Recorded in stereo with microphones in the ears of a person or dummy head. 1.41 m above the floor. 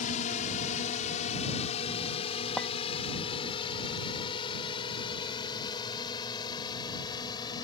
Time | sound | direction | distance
0.0 | a drone | 45° left (ahead or behind) | ?
2.6 | a clink | 10° left (ahead or behind) | ?